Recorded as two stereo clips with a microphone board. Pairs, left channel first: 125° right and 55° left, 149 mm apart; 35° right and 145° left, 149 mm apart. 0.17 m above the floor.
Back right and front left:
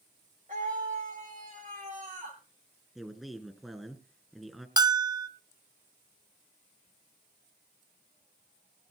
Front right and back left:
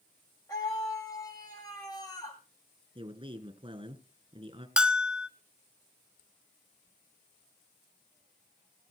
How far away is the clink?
No clink in this recording.